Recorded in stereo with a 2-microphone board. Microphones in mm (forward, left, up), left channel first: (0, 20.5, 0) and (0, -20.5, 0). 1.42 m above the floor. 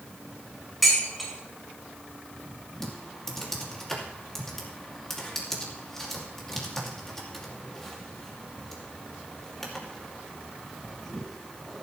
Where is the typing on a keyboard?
10° left (ahead or behind), 2.5 m.